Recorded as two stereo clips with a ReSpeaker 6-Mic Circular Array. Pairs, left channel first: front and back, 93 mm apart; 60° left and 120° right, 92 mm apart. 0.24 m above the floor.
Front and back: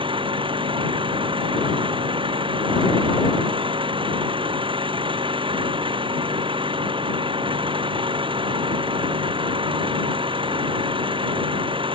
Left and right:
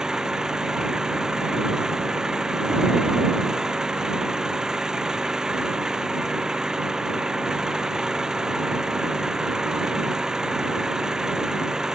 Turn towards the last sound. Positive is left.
turn(degrees=155)